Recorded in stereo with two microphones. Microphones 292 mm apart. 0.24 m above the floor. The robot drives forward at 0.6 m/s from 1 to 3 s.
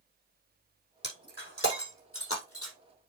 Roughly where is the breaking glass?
Left.